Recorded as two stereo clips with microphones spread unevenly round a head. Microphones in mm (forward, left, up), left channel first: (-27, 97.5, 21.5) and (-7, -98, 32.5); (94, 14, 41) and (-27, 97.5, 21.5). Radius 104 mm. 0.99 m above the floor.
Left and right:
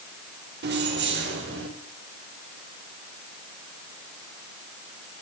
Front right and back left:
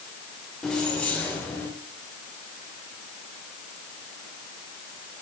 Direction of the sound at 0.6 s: 120° right.